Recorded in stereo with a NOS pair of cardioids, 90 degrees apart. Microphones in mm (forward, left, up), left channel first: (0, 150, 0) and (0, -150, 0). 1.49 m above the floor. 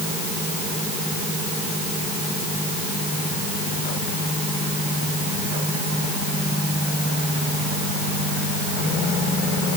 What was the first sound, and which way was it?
Only background noise.